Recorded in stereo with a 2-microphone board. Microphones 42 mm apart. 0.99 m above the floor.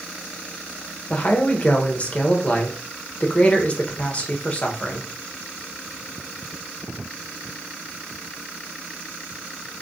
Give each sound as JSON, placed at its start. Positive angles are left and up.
{"t": 1.1, "sound": "a man speaking", "side_deg": 30, "distance_m": 0.8}